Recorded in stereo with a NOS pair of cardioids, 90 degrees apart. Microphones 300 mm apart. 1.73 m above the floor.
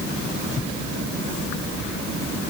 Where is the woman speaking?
I don't hear a woman speaking.